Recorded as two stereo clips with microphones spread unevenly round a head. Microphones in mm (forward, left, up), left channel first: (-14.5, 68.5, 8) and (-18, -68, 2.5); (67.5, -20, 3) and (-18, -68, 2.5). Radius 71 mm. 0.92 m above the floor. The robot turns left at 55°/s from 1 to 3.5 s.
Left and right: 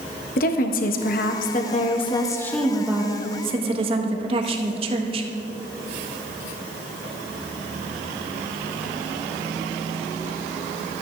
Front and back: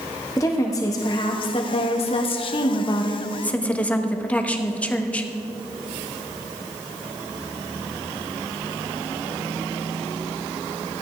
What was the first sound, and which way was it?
A woman speaking, 90° left.